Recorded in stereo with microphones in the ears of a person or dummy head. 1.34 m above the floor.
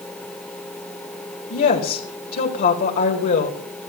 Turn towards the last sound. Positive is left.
turn(degrees=50)  # may be behind; listen again after turning